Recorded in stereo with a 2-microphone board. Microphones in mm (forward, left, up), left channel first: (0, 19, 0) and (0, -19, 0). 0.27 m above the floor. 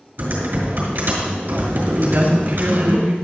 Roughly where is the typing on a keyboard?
Right.